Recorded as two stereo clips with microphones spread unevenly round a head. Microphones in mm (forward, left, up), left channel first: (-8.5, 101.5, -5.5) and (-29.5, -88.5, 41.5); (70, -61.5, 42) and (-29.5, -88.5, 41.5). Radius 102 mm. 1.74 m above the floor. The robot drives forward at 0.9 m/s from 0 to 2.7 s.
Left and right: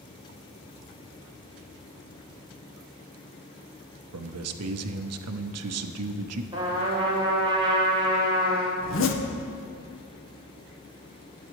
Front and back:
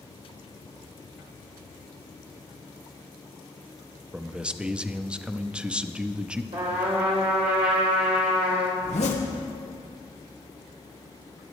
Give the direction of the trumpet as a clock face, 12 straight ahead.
5 o'clock.